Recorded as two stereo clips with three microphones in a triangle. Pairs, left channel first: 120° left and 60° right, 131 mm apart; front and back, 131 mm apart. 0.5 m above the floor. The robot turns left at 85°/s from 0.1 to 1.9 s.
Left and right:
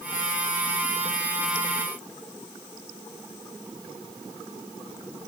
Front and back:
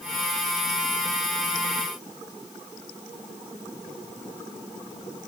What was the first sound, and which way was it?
Only background noise.